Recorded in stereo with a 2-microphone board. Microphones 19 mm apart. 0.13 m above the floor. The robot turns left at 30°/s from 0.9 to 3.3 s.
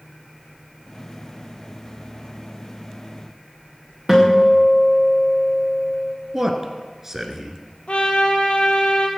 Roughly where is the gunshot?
No gunshot in this recording.